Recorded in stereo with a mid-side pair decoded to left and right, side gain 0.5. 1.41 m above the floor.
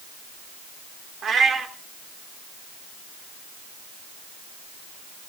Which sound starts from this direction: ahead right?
A cat meowing, at 1.2 s.